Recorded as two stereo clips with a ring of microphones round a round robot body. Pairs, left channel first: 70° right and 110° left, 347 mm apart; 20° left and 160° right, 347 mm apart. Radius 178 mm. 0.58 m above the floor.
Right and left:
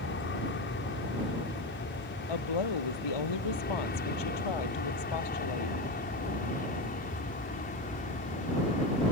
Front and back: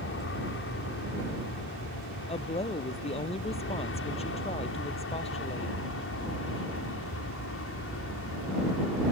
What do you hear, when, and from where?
0.0 s an aircraft: 20° right; by 9.1 s 10° right
2.3 s a woman speaking: 50° right